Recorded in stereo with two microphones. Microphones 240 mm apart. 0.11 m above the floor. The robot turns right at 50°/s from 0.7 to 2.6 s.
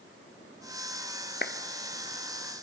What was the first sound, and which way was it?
A clap, 45° left (ahead or behind).